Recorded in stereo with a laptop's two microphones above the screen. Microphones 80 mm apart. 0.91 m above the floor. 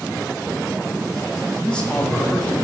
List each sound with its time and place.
1.6 s a man speaking: 10° left (ahead or behind), 2.5 m